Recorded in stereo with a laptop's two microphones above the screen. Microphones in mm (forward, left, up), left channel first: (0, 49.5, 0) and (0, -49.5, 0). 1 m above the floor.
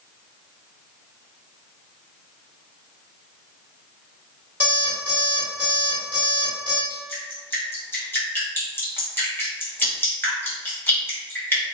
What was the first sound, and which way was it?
An alarm clock, 15° right (ahead or behind).